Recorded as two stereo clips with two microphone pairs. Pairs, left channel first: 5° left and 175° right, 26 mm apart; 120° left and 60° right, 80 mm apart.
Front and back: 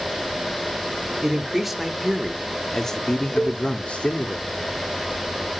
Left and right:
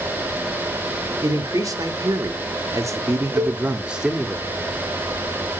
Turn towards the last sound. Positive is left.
turn(degrees=-25)